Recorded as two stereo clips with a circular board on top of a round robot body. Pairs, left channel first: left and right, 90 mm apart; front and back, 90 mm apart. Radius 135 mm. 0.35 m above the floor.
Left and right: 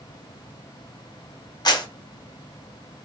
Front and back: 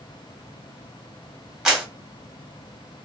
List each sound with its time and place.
1.6 s a clap: 95° left, 1.6 m